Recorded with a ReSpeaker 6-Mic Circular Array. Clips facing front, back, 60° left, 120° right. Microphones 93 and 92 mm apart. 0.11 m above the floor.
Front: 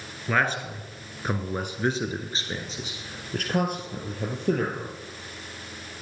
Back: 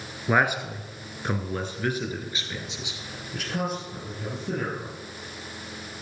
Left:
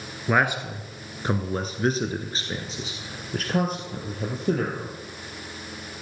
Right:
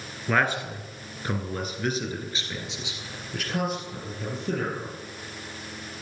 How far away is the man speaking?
About 2 m.